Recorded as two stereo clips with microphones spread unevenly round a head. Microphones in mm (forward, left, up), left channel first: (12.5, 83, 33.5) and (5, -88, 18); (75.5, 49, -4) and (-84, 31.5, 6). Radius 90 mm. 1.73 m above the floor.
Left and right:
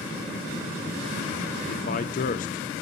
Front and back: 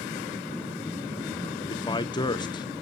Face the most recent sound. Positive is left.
turn(degrees=65)